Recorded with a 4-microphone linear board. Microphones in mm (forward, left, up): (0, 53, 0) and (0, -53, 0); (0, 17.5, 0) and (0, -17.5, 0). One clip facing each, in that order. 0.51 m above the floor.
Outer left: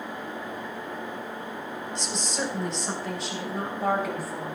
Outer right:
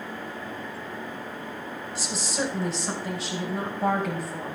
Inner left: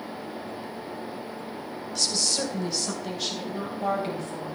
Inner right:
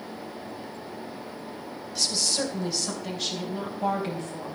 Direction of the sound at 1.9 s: 5° right (ahead or behind).